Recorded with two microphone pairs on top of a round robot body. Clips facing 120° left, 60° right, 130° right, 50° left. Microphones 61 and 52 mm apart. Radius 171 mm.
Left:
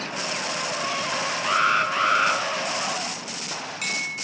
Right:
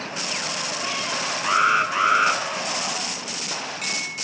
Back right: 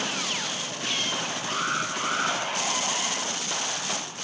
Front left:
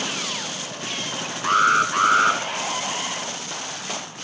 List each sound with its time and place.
1.4 s an alarm: 20° left, 5 m